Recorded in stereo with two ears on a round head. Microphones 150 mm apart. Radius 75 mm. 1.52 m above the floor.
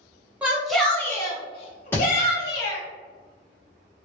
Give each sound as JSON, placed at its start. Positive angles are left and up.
{"t": 0.4, "sound": "a shout", "side_deg": -10, "distance_m": 0.9}
{"t": 1.9, "sound": "a thud", "side_deg": 15, "distance_m": 1.4}